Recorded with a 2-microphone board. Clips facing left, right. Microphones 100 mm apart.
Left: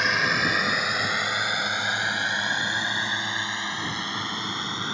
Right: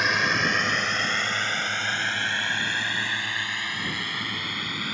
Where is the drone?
Centre (ahead or behind); by 4.9 s 25° left (ahead or behind).